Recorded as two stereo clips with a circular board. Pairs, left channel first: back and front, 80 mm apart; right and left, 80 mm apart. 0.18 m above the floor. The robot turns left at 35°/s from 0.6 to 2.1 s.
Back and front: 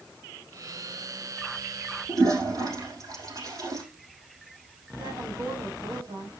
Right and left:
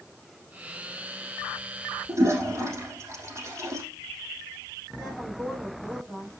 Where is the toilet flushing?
35° left, 5 m.